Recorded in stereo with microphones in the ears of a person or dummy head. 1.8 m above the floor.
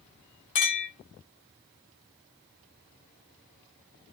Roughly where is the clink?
Left.